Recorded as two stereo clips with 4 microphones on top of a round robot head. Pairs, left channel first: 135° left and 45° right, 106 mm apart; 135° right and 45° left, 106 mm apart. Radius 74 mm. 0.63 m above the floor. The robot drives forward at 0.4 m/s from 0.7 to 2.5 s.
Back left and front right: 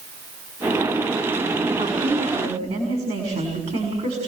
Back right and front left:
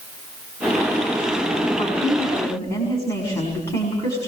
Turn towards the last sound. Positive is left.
turn(degrees=-70)